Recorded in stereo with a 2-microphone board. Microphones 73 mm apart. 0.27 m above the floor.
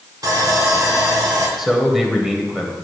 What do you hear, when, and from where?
0.2 s sawing: 60° right (ahead or behind), 2.0 m
1.6 s a man speaking: 5° right (ahead or behind), 1.2 m